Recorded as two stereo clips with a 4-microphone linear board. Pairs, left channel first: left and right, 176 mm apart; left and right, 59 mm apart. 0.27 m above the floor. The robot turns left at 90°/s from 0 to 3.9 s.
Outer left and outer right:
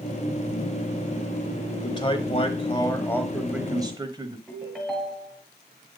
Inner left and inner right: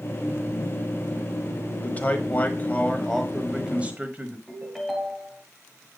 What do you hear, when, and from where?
1.8 s a man speaking: 135° left, 1.1 m; by 4.4 s 50° right, 1.1 m
4.5 s a ringtone: centre (ahead or behind), 1.9 m